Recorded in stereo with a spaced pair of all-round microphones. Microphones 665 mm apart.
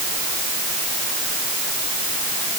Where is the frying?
I don't hear frying.